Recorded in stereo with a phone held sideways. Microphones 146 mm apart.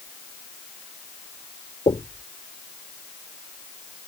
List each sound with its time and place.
1.9 s knocking: 45° left (ahead or behind)